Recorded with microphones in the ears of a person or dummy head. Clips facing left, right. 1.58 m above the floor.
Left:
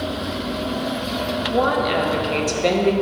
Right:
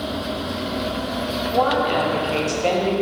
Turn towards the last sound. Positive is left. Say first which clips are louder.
# even
turn(degrees=25)  # may be behind; listen again after turning